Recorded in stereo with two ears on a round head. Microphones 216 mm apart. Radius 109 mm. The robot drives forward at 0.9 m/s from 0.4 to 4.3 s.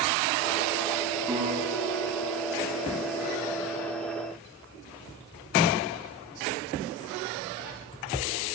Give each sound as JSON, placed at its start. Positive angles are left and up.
{"t": 1.3, "sound": "a guitar", "side_deg": -10, "distance_m": 7.5}